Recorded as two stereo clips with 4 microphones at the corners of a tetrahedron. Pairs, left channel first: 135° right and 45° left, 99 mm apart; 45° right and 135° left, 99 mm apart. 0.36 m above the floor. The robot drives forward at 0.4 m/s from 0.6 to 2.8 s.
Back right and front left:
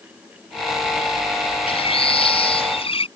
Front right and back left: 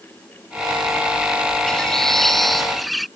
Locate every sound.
1.7 s a bird: 130° right; by 3.1 s 135° right